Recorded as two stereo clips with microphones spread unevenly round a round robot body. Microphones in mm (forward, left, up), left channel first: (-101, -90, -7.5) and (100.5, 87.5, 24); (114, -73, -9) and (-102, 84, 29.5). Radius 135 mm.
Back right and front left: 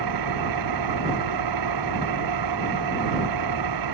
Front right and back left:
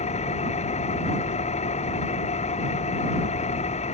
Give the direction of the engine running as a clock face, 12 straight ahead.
11 o'clock.